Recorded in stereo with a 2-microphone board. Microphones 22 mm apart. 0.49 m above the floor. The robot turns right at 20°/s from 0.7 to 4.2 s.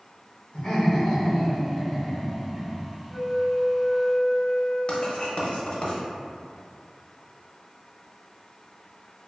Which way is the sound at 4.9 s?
55° left (ahead or behind).